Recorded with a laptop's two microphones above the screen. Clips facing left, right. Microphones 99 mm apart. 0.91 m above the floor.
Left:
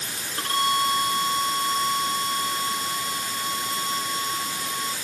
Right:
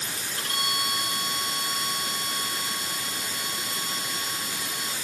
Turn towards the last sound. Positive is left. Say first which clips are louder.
# left 9 dB
turn(degrees=40)  # may be behind; listen again after turning